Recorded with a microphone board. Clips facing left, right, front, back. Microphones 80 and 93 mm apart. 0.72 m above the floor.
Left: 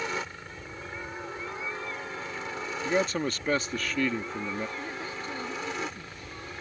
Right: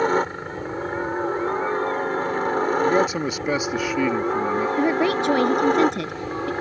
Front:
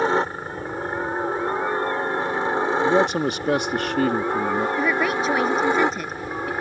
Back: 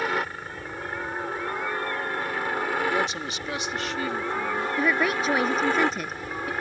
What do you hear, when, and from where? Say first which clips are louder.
0.0 s a helicopter: right 13 dB, front 7 dB; 55° right; by 6.6 s 70° right
2.9 s a man speaking: right 7 dB, front 8 dB; 10° right
4.8 s a woman speaking: right 17 dB, front 2 dB; 90° right